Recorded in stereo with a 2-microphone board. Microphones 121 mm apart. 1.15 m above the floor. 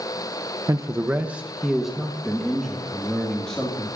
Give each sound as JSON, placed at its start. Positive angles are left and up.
{"t": 0.7, "sound": "a man speaking", "side_deg": -30, "distance_m": 0.5}